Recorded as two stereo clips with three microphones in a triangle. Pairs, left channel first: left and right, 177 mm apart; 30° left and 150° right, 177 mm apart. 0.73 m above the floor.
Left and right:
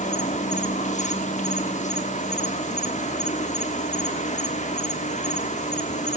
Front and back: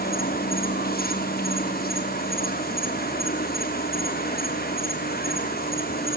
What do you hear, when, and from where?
0.0 s an insect: 50° left, 1.1 m